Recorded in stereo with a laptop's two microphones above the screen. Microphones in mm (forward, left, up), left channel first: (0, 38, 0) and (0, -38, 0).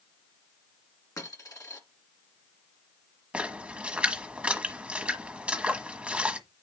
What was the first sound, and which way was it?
A dropped coin, 50° left (ahead or behind).